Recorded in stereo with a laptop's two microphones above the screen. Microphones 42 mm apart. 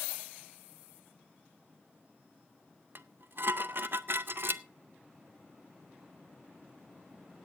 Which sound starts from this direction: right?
Dishes clattering, at 3.0 s.